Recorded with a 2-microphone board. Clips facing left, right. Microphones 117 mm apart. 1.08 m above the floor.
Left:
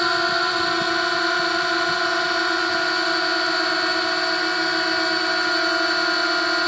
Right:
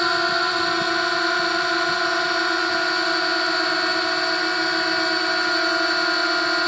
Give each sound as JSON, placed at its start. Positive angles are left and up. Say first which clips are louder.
{"t": 0.0, "sound": "a drone", "louder": "even", "side_deg": 0}